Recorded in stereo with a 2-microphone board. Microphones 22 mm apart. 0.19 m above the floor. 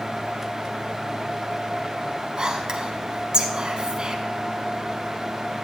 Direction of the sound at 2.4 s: 40° right (ahead or behind).